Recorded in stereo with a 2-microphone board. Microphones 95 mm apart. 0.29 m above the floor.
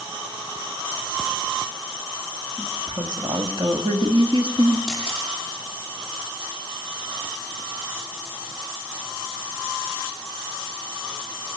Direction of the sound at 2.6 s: 45° right (ahead or behind).